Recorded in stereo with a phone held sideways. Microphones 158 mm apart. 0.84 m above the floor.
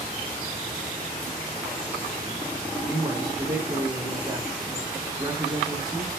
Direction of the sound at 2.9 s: 25° right (ahead or behind).